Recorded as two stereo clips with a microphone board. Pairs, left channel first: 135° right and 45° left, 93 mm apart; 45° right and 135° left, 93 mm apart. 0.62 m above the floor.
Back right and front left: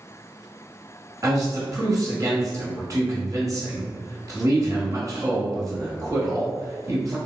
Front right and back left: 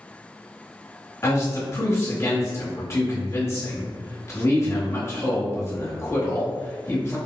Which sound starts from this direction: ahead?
A man speaking, at 1.2 s.